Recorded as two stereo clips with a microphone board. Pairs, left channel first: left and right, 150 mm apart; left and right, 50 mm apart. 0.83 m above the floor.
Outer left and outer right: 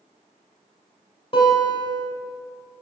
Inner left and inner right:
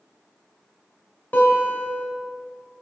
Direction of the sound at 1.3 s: 35° left (ahead or behind).